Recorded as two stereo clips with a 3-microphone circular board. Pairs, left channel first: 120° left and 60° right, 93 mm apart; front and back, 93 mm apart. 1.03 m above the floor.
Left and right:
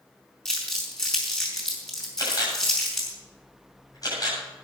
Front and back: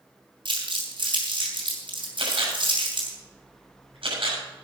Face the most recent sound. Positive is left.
turn(degrees=165)